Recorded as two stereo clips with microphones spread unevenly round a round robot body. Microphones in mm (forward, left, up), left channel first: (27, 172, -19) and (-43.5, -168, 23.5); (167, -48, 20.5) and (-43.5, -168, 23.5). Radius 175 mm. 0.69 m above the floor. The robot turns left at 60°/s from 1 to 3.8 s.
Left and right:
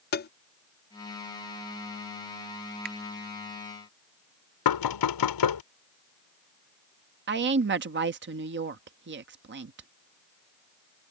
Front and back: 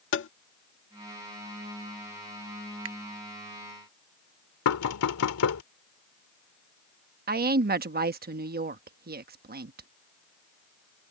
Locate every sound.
0.1 s tapping: 30° left
2.9 s a finger snap: 165° right; by 3.0 s 170° right
4.7 s knocking: 55° left
7.3 s a woman speaking: 150° right